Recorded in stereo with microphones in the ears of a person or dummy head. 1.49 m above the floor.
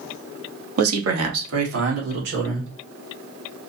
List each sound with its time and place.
0.8 s a man speaking: 75° right (ahead or behind), 0.8 m; by 2.7 s 70° right (ahead or behind), 2 m